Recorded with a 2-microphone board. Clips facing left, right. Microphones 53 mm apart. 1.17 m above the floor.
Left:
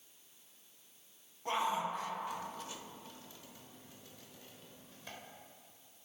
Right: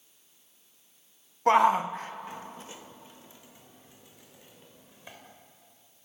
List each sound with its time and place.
1.5 s a shout: 60° right (ahead or behind), 0.9 m; by 5.2 s 15° right (ahead or behind), 6 m